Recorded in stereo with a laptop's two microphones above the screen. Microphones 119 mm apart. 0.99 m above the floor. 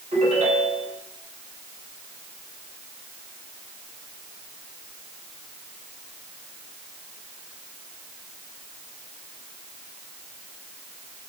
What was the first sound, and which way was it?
A ringtone, 90° right.